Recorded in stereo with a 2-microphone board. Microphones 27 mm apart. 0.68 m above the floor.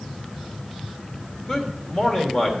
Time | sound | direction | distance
1.5 | a man speaking | 25° left (ahead or behind) | 2.5 m